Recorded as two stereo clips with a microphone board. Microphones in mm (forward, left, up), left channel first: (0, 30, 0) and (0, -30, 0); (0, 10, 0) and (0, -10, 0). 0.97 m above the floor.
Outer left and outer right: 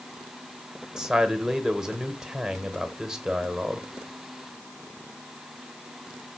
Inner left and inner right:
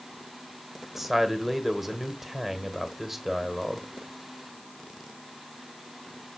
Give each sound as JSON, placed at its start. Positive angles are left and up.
{"t": 1.0, "sound": "a man speaking", "side_deg": -10, "distance_m": 0.9}